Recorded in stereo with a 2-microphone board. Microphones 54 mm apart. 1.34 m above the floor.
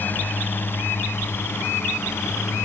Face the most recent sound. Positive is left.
turn(degrees=55)  # may be behind; listen again after turning